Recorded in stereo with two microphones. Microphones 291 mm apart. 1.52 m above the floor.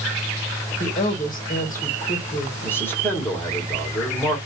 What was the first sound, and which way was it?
A woman speaking, 30° left (ahead or behind).